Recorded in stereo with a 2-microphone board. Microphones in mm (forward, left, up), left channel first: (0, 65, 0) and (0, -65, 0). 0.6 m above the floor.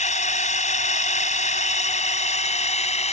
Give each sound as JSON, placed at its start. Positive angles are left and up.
{"t": 0.0, "sound": "a drone", "side_deg": 75}